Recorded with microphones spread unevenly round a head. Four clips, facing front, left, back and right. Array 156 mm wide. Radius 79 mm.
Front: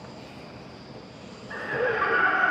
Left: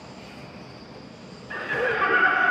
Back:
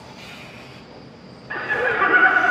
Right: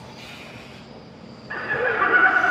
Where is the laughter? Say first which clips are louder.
Right 2 dB, back 4 dB; 165° right, 1.5 m.